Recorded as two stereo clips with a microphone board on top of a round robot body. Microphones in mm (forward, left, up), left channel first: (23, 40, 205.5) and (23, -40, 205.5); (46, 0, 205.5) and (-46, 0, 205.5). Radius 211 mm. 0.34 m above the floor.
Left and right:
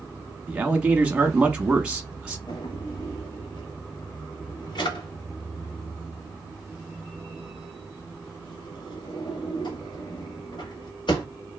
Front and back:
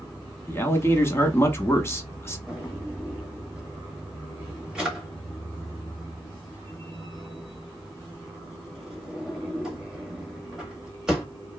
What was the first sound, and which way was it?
A man speaking, 30° right.